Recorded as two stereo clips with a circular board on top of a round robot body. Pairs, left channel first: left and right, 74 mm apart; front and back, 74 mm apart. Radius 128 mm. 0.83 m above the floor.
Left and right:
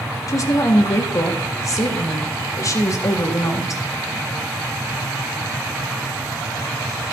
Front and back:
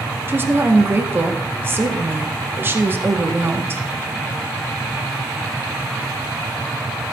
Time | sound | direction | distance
0.3 | a woman speaking | 125° left | 1.9 m